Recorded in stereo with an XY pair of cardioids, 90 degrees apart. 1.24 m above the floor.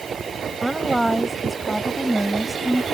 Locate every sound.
0.6 s a woman speaking: 5° right